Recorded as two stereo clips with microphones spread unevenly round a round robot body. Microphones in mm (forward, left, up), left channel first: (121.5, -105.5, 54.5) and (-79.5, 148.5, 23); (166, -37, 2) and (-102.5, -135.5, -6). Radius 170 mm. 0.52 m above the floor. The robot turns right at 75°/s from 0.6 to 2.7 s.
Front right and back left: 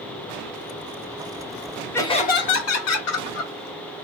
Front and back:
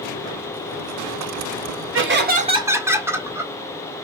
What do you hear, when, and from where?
1.9 s laughter: 140° right, 1.6 m; by 3.5 s 80° right, 1.6 m